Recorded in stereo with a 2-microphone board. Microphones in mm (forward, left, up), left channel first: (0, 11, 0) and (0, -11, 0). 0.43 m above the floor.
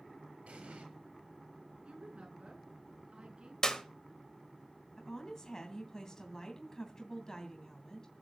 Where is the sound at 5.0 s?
30° left (ahead or behind), 2.5 m.